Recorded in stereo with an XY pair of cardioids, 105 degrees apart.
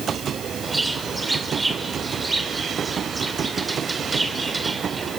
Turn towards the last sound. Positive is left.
turn(degrees=-20)